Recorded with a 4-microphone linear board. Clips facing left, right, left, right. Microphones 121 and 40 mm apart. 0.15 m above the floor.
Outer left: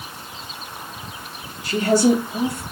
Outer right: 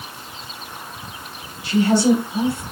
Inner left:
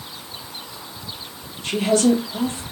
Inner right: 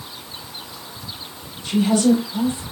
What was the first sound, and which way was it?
A woman speaking, 40° left (ahead or behind).